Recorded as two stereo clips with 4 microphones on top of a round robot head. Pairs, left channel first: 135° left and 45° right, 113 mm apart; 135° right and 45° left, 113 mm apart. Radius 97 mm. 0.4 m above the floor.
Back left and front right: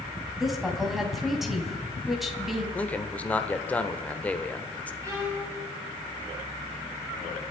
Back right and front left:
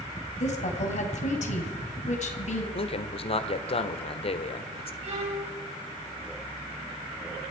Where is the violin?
15° left, 4 m.